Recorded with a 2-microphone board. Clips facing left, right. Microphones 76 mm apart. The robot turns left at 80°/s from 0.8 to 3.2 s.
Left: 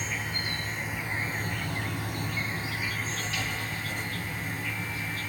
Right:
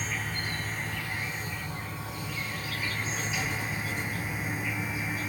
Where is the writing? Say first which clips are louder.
Right 1 dB; 60° left (ahead or behind), 2.5 m.